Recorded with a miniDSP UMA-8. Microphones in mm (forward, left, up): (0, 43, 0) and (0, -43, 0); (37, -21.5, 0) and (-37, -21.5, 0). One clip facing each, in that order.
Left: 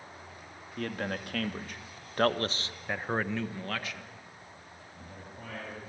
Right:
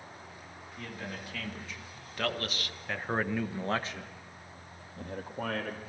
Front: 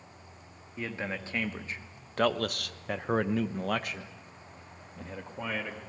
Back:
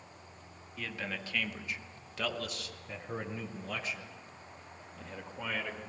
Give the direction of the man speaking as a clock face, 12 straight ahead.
10 o'clock.